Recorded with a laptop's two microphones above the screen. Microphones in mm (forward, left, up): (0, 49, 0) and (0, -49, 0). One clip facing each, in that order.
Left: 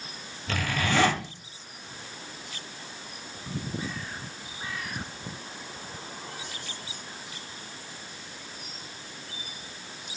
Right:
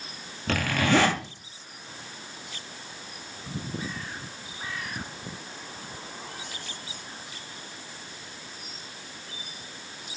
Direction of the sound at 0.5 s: 65° right (ahead or behind).